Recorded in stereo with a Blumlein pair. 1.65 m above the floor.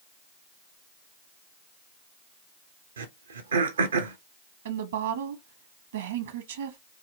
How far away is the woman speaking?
About 0.9 m.